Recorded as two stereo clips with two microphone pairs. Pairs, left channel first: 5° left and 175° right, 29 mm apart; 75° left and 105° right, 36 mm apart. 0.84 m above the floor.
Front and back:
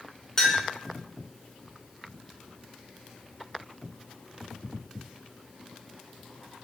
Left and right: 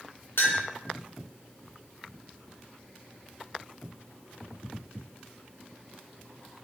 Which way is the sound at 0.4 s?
70° left.